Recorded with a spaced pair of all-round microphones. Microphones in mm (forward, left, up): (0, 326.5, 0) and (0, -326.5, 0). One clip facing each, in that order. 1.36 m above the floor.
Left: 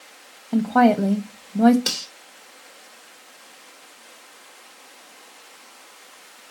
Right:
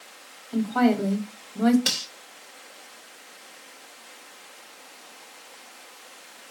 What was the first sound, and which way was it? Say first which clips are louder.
A woman speaking: left 4 dB; 70° left (ahead or behind).